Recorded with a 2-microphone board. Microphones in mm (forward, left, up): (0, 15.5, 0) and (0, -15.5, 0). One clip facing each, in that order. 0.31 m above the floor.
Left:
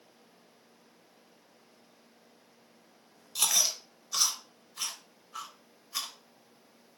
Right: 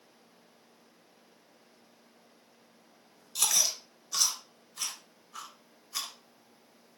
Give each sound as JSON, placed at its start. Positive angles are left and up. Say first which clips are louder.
{"t": 3.4, "sound": "chewing", "louder": "even", "side_deg": 10, "distance_m": 0.5}